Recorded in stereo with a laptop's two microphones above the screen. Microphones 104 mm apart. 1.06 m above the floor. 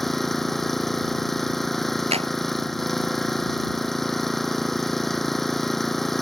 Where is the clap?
90° right.